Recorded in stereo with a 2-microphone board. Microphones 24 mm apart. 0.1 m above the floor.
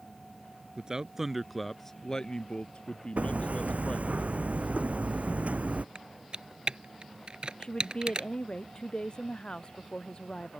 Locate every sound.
0.8 s a man speaking: 30° right (ahead or behind); by 4.2 s 50° left (ahead or behind)
3.2 s hammering: 70° right (ahead or behind)
6.0 s typing on a keyboard: 40° right (ahead or behind)
7.6 s a woman speaking: 35° left (ahead or behind)